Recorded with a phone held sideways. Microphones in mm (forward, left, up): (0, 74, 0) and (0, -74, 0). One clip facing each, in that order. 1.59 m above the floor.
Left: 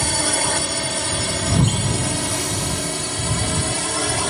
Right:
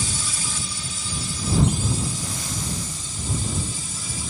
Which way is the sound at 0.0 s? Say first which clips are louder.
Left 10 dB; 65° left (ahead or behind).